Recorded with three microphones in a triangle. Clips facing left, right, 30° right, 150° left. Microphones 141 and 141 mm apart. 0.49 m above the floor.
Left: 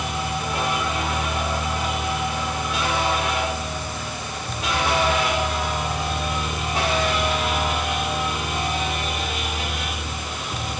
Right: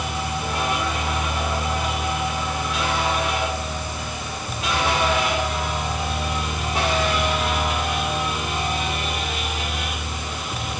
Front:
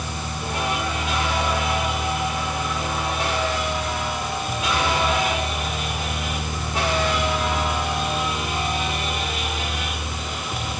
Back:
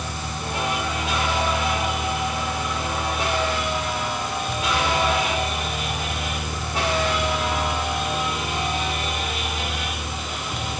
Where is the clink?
No clink in this recording.